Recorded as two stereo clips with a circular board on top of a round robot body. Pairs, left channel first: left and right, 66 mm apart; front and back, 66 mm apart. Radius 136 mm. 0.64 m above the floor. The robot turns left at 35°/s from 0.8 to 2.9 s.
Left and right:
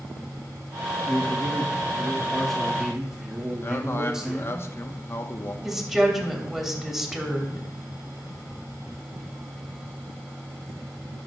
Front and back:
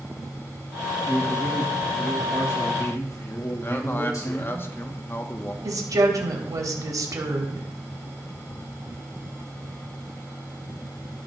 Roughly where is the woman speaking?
Behind.